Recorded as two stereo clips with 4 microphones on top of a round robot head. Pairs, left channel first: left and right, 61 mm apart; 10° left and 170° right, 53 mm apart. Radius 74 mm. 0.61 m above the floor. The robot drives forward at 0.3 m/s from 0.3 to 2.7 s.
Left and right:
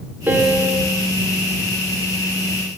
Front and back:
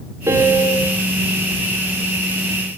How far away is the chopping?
I don't hear chopping.